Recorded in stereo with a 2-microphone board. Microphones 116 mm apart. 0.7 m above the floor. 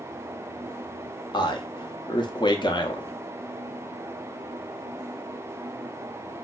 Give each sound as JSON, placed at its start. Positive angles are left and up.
{"t": 1.3, "sound": "a man speaking", "side_deg": 40, "distance_m": 0.6}